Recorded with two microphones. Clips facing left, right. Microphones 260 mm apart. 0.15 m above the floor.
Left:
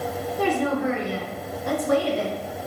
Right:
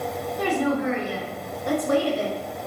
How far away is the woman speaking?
About 1.7 m.